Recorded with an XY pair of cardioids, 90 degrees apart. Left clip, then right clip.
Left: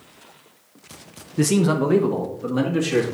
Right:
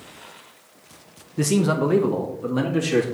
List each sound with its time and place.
1.4 s a man speaking: 15° left, 0.5 m; by 3.0 s 10° right, 2.0 m